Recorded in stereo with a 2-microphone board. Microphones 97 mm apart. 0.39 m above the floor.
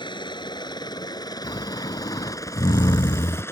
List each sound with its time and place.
0.0 s a helicopter: 55° left (ahead or behind); by 3.5 s 25° left (ahead or behind)
1.4 s snoring: 55° left (ahead or behind)